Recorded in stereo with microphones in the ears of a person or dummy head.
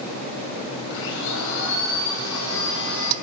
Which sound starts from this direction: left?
A blender, at 0.9 s.